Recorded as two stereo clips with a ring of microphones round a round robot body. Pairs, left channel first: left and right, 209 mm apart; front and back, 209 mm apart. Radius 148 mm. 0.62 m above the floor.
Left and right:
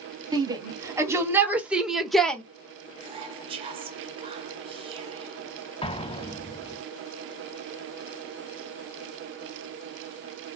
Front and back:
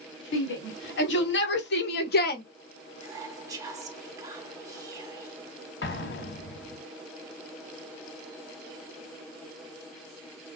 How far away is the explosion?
About 1.1 m.